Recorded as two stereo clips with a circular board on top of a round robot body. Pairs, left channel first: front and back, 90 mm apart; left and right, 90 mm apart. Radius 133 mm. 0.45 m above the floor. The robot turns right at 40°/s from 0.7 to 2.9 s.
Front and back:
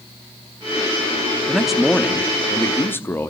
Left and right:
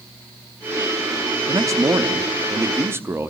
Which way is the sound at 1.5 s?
105° right.